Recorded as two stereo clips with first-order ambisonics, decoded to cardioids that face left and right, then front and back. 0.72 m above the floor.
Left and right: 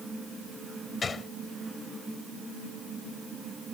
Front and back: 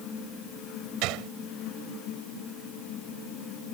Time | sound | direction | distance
1.0 | a gunshot | 165° left | ?